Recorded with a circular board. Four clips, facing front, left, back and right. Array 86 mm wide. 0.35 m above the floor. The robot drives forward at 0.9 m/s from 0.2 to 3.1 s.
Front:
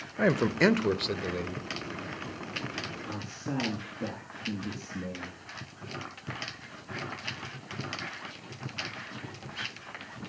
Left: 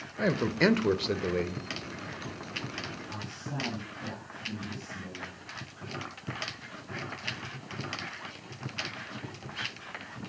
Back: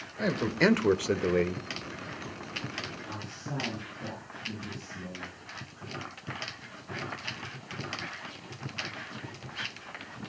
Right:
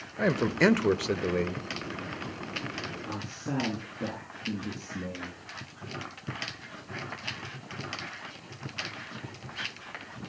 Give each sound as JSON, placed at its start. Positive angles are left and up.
{"t": 0.2, "sound": "a man speaking", "azimuth_deg": -15, "distance_m": 0.9}
{"t": 3.0, "sound": "a man speaking", "azimuth_deg": -55, "distance_m": 5.5}